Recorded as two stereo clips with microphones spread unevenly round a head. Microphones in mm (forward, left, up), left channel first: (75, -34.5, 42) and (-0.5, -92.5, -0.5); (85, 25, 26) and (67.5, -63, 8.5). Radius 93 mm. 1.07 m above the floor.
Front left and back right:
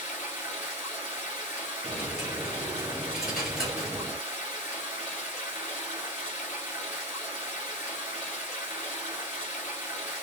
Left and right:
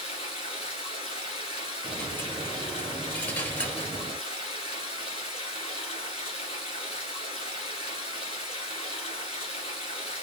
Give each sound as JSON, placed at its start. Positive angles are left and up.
{"t": 0.0, "sound": "running water", "azimuth_deg": 80, "distance_m": 1.6}
{"t": 1.8, "sound": "a dropped coin", "azimuth_deg": 65, "distance_m": 1.1}